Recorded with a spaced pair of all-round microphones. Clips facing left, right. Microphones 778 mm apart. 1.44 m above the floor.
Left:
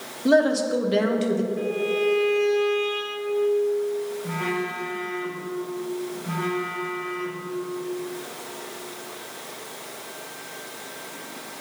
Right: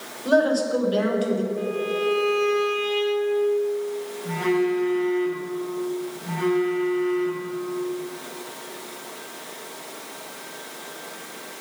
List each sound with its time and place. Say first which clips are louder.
0.2 s a woman speaking: left 1 dB; 60° left (ahead or behind), 0.8 m
1.6 s a violin: left 1 dB; 35° left (ahead or behind), 0.7 m
4.2 s a phone buzzing: right 7 dB; 45° left (ahead or behind), 1.5 m